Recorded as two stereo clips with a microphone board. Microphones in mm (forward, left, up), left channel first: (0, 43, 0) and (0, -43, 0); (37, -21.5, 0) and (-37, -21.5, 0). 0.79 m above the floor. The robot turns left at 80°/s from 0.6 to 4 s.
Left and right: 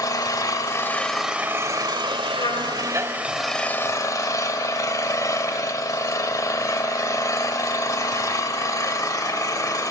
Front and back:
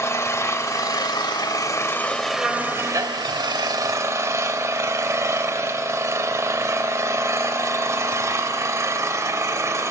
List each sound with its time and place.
0.0 s an engine running: 50° left, 1.3 m; by 9.9 s 135° left, 1.3 m
2.4 s a trumpet: 100° left, 3 m; by 2.8 s 65° left, 3 m